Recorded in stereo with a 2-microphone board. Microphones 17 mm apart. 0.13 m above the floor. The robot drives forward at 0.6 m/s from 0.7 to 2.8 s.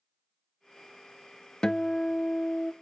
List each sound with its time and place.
1.6 s a guitar: 45° left (ahead or behind), 0.7 m